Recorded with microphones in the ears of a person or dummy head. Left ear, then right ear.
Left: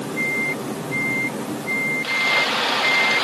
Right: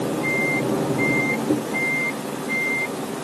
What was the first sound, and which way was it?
Only background noise.